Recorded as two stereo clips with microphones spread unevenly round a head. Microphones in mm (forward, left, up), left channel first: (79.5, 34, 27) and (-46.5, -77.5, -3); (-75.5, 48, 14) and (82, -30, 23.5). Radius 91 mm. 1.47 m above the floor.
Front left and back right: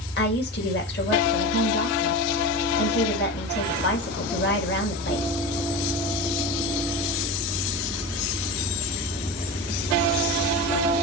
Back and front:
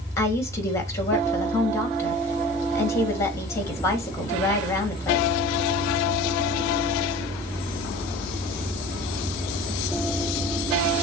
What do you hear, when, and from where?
0.2 s a woman speaking: 80° left, 3 m